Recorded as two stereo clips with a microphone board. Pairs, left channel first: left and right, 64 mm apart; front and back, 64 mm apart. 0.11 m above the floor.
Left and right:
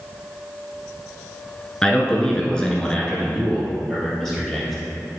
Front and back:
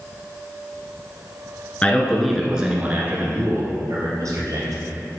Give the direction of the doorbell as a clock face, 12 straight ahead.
No doorbell in this recording.